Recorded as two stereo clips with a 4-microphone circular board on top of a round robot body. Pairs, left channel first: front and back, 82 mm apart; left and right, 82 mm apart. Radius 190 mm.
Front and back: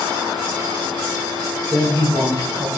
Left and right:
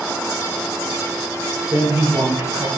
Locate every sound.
1.7 s a man speaking: 145° right, 5 m